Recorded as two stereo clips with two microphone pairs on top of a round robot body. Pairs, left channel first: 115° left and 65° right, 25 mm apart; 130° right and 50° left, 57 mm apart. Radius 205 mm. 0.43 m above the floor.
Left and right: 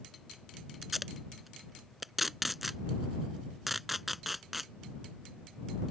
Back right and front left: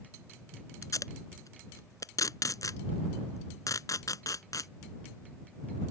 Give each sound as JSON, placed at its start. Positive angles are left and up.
{"t": 0.8, "sound": "tape being pulled", "azimuth_deg": -155}